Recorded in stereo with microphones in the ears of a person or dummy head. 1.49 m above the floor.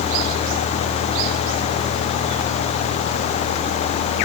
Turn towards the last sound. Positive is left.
No sound to turn to.